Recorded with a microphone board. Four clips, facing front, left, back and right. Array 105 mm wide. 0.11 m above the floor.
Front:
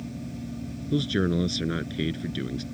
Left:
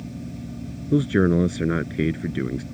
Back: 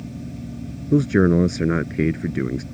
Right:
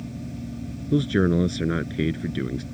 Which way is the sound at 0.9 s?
165° left.